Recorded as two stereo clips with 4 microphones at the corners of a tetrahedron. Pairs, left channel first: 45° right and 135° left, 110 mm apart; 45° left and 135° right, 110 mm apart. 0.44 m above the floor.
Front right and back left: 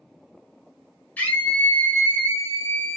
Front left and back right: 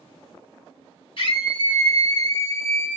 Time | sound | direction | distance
1.2 | a scream | 25° left | 1.8 m